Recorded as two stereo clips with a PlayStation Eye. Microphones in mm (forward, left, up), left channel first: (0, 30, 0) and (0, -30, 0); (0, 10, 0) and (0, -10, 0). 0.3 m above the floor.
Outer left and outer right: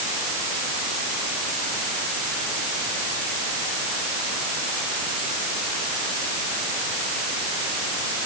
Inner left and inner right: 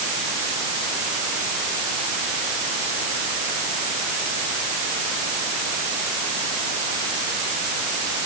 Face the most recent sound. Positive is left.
No sound to turn to.